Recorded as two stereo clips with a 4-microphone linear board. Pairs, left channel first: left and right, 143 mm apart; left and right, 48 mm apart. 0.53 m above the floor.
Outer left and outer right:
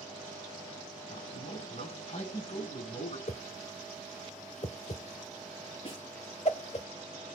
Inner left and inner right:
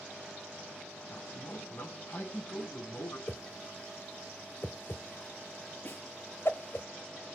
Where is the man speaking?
45° left (ahead or behind), 5.5 m.